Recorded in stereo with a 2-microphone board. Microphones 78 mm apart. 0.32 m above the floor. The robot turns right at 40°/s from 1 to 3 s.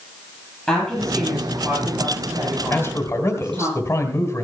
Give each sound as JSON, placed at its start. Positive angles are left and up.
{"t": 0.7, "sound": "a woman speaking", "azimuth_deg": 165, "distance_m": 8.0}
{"t": 2.7, "sound": "a man speaking", "side_deg": 20, "distance_m": 1.8}